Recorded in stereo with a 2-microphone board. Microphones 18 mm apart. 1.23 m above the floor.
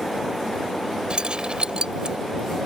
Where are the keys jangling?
60° right (ahead or behind).